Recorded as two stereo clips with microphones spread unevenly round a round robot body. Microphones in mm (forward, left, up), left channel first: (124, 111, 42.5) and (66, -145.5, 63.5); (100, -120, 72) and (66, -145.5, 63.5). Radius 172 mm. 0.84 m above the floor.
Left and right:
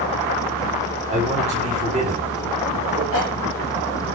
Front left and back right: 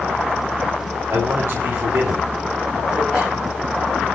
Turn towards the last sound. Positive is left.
turn(degrees=130)